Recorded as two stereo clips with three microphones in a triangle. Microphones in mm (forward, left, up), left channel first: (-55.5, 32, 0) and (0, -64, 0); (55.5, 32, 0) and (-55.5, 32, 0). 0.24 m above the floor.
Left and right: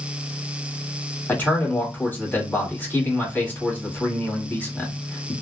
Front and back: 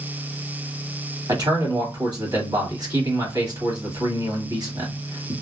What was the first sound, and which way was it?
A man speaking, straight behind.